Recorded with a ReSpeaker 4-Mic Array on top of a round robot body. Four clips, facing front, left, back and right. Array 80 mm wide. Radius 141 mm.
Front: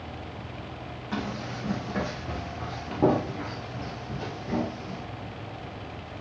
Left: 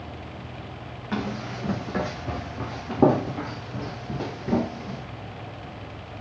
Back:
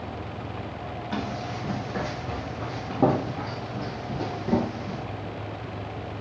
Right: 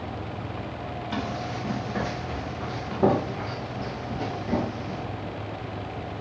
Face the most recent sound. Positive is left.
turn(degrees=135)